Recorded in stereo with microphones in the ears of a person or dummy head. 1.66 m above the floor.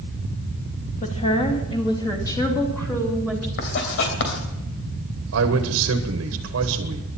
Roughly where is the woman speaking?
Left.